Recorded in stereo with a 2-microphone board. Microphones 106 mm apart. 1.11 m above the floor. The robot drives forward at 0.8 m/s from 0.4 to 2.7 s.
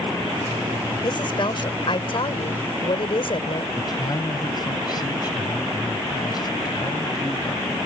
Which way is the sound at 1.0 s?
50° left (ahead or behind).